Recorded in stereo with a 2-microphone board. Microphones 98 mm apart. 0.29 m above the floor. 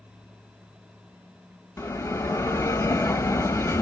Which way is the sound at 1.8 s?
30° left (ahead or behind).